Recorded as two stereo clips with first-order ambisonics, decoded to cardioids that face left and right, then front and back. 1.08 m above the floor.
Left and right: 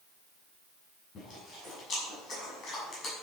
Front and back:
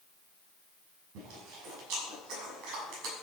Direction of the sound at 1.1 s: 150° left.